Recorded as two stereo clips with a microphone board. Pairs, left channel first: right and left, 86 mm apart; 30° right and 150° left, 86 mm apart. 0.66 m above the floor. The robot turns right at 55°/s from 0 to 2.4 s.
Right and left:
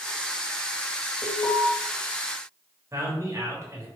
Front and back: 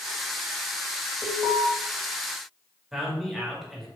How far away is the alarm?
About 1.9 m.